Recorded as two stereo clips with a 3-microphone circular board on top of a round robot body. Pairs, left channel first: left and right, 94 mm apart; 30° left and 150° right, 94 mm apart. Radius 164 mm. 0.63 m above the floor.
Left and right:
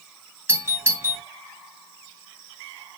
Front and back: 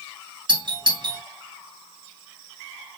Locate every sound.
0.5 s a doorbell: 145° right, 2 m